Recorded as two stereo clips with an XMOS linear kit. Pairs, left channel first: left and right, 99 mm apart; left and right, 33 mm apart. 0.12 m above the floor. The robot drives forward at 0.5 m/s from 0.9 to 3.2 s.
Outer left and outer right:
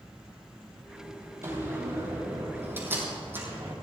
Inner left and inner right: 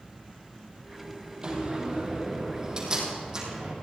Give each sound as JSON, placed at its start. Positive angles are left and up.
{"t": 1.4, "sound": "a door slam", "side_deg": -30, "distance_m": 3.5}